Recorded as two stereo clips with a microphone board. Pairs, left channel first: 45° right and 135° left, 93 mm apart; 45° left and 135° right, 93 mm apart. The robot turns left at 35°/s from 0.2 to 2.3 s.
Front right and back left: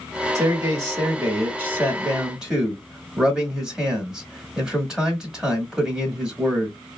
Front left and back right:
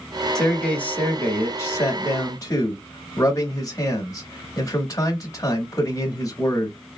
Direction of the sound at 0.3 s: 125° left.